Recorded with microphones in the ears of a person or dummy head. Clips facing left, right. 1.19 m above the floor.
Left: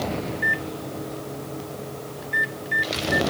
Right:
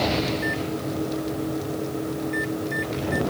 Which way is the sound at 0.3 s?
15° left (ahead or behind).